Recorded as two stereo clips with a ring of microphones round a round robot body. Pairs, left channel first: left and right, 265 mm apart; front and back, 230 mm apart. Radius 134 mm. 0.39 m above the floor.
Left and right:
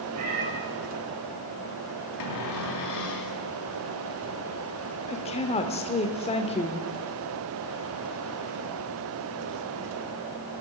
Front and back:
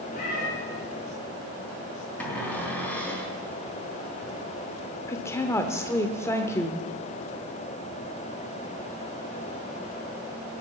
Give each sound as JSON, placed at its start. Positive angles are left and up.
{"t": 0.1, "sound": "a cat meowing", "azimuth_deg": -65, "distance_m": 7.5}
{"t": 2.2, "sound": "a cupboard door", "azimuth_deg": 85, "distance_m": 3.0}
{"t": 5.1, "sound": "a woman speaking", "azimuth_deg": 60, "distance_m": 1.0}